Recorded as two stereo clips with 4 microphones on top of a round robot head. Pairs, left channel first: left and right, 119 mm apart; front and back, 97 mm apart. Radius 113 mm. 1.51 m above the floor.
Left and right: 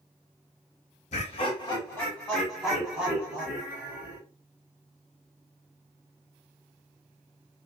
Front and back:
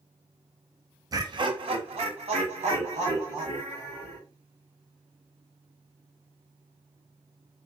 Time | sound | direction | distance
1.1 | laughter | 130° left | 0.6 m